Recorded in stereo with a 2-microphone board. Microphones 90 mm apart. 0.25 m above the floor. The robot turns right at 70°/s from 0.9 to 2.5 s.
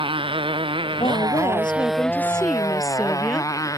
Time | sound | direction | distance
0.0 | a motorcycle | 75° right | ?
1.0 | a woman speaking | 75° left | ?